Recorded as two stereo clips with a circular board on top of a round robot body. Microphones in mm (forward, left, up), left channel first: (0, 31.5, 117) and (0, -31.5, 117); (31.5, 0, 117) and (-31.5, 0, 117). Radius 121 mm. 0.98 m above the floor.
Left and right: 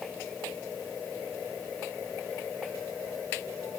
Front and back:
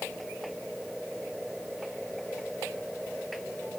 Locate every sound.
Only background noise.